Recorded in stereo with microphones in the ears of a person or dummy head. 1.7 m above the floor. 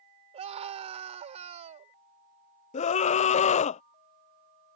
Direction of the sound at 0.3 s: 30° right (ahead or behind).